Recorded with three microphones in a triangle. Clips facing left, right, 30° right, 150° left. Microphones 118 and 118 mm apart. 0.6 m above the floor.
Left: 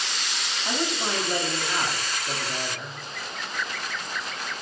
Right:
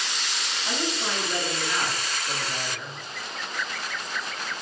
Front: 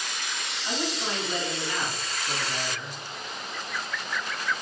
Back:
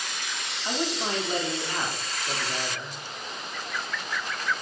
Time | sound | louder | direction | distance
0.7 | a man speaking | left 2 dB, back 2 dB | 120° left | 0.9 m